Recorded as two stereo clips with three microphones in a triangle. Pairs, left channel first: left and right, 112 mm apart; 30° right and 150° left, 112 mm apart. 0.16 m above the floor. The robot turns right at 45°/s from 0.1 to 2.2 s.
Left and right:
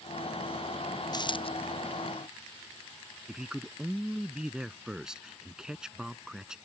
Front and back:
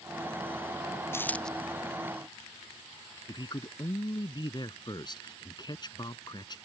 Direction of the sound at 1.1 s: 40° left.